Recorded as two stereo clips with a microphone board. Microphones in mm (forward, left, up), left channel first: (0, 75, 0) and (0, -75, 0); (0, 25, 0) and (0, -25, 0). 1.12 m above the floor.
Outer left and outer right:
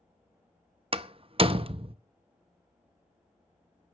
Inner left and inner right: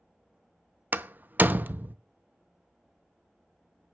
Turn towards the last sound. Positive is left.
turn(degrees=-40)  # may be behind; listen again after turning